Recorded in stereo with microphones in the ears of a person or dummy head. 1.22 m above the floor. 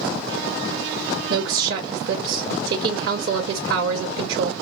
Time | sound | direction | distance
1.3 | a woman speaking | 55° right (ahead or behind) | 0.7 m